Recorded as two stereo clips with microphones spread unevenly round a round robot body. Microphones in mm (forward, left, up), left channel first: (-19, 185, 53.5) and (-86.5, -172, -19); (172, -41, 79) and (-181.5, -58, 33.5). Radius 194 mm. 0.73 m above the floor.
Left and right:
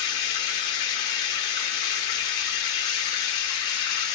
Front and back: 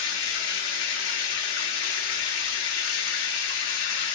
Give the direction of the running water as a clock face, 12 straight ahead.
11 o'clock.